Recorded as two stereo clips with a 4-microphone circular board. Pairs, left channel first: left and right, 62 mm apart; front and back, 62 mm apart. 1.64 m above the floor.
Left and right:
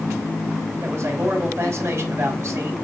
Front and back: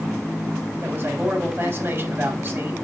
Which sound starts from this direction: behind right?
A man speaking, at 0.8 s.